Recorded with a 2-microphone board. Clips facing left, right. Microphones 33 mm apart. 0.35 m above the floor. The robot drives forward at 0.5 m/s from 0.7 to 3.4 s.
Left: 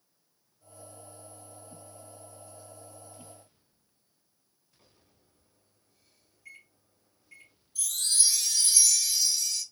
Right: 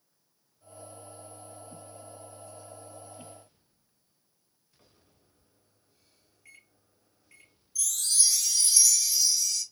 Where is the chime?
40° left (ahead or behind), 1.0 m.